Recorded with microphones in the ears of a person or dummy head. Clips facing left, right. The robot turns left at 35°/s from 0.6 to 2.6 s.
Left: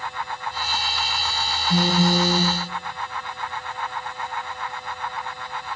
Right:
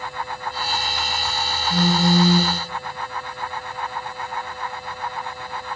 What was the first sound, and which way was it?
A phone buzzing, 10° left (ahead or behind).